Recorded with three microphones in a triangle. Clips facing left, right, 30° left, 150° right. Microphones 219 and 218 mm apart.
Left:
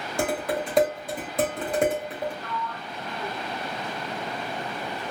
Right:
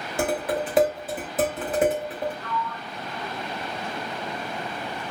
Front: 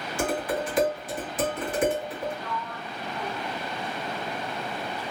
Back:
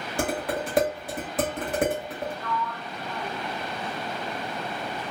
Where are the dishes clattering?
175° right, 1.6 m.